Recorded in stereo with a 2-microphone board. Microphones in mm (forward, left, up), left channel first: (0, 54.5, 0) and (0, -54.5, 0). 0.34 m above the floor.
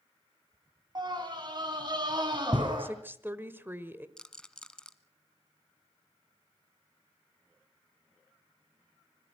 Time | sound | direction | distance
0.9 | a scream | 40° right (ahead or behind) | 2.5 m
2.8 | a woman speaking | 20° right (ahead or behind) | 1.2 m
4.2 | a rattle | 5° left (ahead or behind) | 0.9 m